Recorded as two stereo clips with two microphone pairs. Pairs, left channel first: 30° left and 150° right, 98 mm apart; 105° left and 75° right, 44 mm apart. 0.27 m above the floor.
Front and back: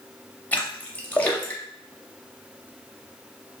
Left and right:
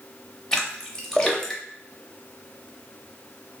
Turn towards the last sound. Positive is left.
turn(degrees=60)